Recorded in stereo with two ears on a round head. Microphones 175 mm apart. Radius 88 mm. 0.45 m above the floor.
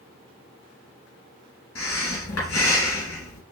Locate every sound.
1.8 s breathing: 85° left, 3 m